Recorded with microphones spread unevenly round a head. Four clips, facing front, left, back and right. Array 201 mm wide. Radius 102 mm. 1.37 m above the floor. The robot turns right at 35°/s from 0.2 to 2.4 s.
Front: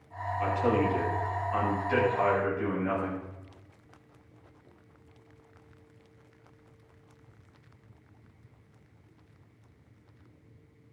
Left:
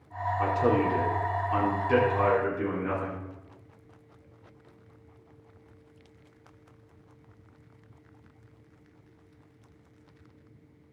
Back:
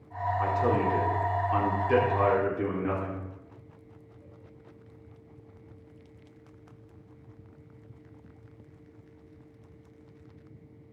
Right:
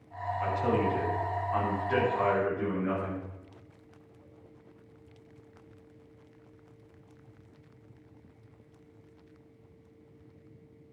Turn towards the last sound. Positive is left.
turn(degrees=170)